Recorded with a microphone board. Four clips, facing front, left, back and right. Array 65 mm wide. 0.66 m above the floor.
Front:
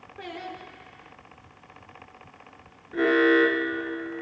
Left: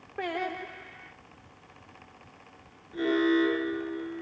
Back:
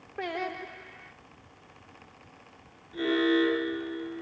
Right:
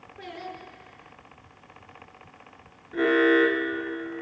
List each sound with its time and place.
0.2 s singing: 125° left, 1.5 m
2.9 s an alarm: 40° right, 5 m